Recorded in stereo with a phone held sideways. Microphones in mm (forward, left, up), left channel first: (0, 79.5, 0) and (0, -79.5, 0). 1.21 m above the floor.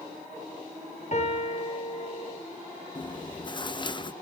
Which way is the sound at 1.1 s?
50° left (ahead or behind).